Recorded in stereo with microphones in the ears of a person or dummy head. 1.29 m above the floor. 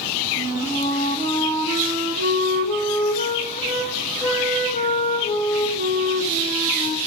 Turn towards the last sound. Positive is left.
turn(degrees=40)  # may be behind; listen again after turning